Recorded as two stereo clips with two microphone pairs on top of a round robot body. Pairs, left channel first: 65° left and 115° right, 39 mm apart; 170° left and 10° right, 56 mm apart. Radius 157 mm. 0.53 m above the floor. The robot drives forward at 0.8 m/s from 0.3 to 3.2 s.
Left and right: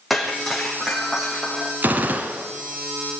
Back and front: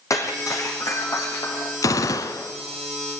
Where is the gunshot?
165° right, 1.2 m; by 2.5 s 170° right, 1.7 m.